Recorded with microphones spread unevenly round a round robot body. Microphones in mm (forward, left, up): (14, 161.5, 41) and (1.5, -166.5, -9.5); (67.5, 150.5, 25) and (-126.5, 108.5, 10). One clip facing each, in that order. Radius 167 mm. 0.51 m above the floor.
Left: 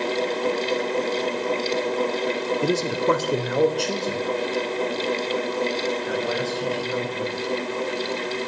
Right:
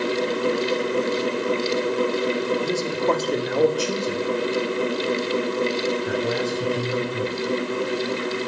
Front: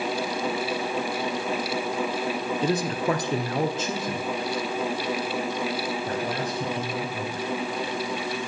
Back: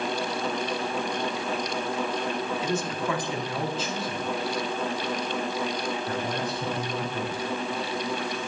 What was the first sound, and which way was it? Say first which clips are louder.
A man speaking: left 1 dB, front 7 dB; 45° left.